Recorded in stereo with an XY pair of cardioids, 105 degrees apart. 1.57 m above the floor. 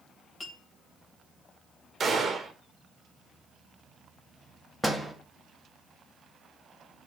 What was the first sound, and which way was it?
A clink, 45° left.